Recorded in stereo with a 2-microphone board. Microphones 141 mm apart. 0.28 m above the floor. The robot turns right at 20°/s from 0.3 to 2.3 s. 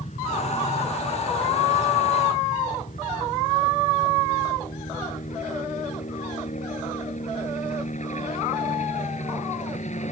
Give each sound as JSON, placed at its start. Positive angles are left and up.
{"t": 0.0, "sound": "a helicopter", "side_deg": 55}